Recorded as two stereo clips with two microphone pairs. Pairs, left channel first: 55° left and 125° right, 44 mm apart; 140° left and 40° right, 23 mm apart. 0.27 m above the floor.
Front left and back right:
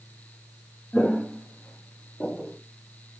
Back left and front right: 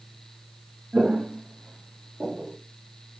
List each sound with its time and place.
0.9 s footsteps: 20° right, 0.7 m; by 2.6 s 5° right, 1.7 m